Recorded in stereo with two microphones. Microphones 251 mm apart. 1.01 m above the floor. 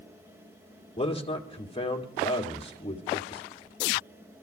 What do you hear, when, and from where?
1.0 s a man speaking: 20° left (ahead or behind), 1.7 m